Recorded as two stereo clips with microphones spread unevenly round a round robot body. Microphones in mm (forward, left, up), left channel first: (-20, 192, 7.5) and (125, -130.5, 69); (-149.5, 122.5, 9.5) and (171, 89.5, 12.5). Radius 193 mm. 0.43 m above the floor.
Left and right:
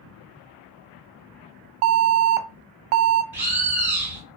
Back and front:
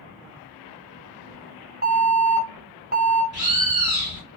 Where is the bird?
30° left, 1.7 m.